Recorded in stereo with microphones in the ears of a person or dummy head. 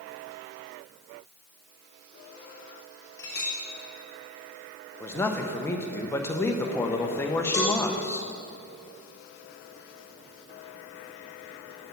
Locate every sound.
3.2 s a clink: 20° left (ahead or behind), 1.7 m
5.0 s a man speaking: 15° left (ahead or behind), 0.9 m
7.5 s a cowbell: 20° left (ahead or behind), 1.2 m